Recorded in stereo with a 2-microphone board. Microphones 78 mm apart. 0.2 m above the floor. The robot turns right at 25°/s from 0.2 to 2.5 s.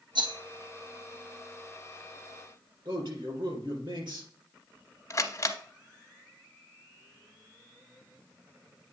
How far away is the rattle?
About 1.4 m.